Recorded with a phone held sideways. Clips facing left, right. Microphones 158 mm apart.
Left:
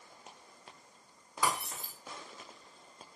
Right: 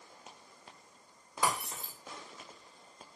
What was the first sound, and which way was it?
Breaking glass, 20° right (ahead or behind).